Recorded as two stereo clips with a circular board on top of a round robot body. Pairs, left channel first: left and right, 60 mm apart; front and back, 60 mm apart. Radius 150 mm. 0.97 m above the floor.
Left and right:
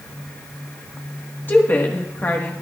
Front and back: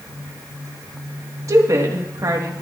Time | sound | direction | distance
1.5 | a woman speaking | 145° left | 1.6 m